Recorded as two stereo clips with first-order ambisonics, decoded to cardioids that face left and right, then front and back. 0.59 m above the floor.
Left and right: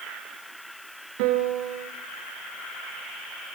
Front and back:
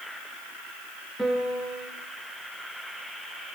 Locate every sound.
1.2 s a piano: 90° right, 3.5 m